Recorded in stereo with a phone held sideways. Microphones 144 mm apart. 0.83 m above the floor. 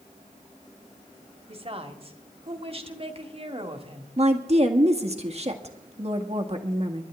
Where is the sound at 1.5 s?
40° right (ahead or behind), 1.7 m.